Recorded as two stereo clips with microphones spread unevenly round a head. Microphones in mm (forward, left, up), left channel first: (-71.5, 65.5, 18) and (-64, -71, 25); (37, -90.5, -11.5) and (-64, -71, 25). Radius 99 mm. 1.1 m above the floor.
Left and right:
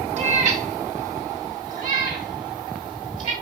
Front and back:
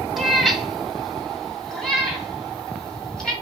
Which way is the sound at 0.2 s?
110° right.